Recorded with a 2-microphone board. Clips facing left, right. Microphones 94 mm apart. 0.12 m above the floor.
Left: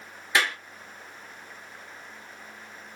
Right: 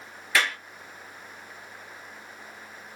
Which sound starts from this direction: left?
A clap, at 0.3 s.